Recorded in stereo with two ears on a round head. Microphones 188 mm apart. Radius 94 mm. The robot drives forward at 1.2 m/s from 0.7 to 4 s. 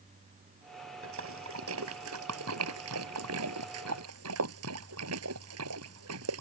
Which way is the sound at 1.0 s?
70° right (ahead or behind).